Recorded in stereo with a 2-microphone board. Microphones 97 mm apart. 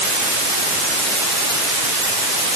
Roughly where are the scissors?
I don't hear scissors.